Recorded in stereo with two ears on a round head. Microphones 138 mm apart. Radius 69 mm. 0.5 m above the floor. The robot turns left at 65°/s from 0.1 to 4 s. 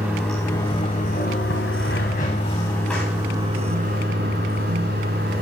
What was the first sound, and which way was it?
Running water, 170° right.